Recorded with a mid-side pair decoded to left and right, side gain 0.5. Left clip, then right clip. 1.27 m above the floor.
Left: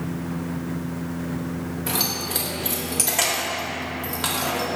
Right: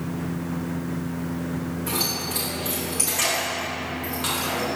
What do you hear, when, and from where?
1.9 s keys jangling: 45° left, 1.0 m